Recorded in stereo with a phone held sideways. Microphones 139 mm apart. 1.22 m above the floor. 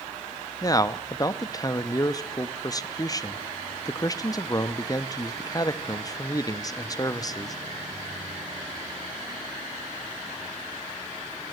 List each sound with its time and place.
0.6 s a man speaking: 25° left (ahead or behind), 0.6 m